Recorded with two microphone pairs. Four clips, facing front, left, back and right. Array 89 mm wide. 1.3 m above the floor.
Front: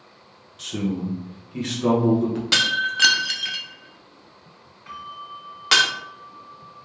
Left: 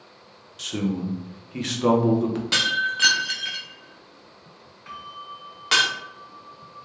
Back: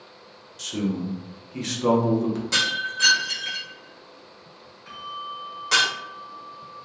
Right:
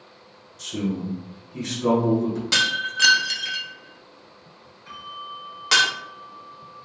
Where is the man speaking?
95° left, 0.9 m.